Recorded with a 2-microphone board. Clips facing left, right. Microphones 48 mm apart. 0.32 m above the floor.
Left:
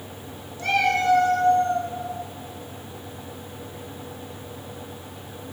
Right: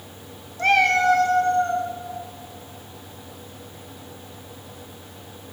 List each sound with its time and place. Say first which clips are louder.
0.6 s a cat meowing: right 4 dB; 50° right (ahead or behind), 0.7 m; by 1.9 s 75° right (ahead or behind), 1.1 m